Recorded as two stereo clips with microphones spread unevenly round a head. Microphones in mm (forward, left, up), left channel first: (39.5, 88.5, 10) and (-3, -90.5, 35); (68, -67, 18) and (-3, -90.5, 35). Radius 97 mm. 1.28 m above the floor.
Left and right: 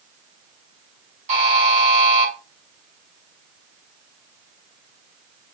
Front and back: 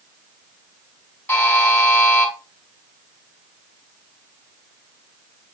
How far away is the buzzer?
About 5 m.